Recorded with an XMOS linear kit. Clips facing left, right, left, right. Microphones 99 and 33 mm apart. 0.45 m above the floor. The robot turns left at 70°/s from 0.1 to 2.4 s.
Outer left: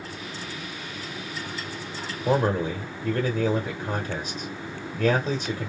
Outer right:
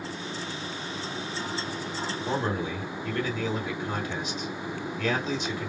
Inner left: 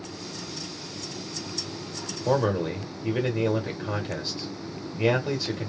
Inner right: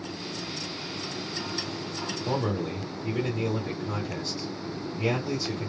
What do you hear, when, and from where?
2.2 s a man speaking: 40° left (ahead or behind), 1.0 m; by 5.7 s 35° left (ahead or behind), 1.0 m